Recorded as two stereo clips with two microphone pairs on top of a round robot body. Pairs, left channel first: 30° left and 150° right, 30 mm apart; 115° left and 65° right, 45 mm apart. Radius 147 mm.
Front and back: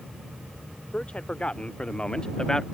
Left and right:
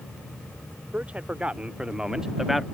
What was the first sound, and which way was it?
A man speaking, 10° right.